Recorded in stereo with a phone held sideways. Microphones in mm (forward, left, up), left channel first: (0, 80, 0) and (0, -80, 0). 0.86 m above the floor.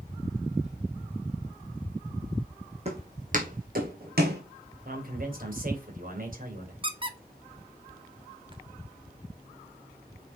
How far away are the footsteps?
About 3.5 m.